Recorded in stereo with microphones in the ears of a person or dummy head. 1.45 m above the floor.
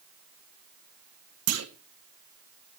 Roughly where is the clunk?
Right.